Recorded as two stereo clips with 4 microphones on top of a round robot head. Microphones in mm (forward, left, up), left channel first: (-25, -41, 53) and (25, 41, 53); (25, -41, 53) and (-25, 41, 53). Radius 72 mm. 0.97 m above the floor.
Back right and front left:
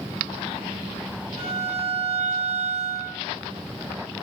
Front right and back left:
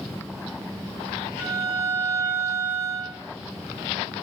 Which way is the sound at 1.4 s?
55° left.